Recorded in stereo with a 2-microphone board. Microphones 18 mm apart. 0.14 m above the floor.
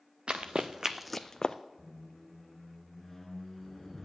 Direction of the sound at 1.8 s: 15° left (ahead or behind).